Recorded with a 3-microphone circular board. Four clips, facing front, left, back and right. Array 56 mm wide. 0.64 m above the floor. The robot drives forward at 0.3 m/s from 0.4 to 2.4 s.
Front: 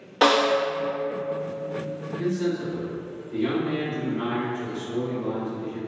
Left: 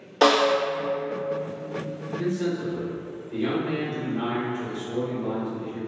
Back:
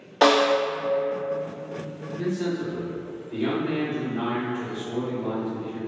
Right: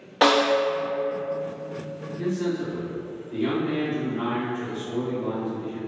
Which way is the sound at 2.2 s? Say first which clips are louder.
Right 1 dB, front 1 dB; 175° right.